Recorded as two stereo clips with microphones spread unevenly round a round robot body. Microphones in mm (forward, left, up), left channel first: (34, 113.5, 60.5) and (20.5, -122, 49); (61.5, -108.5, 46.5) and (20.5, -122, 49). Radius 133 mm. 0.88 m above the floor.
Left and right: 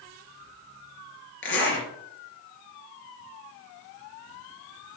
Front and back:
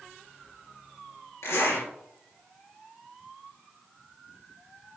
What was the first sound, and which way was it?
A zipper, 45° left.